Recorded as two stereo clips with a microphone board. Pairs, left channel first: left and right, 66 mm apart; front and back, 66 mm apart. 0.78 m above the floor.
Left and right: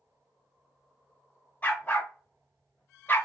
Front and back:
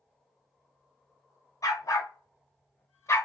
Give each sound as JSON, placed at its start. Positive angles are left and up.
{"t": 1.6, "sound": "a dog barking", "azimuth_deg": 30, "distance_m": 1.5}